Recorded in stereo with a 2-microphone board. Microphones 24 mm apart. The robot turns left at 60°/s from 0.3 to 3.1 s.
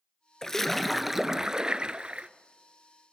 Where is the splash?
25° left, 0.7 m; by 2.3 s 85° right, 0.7 m.